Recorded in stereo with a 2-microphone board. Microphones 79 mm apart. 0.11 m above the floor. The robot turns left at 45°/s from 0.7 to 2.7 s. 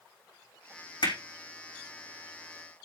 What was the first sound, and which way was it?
Hammering, 75° left (ahead or behind).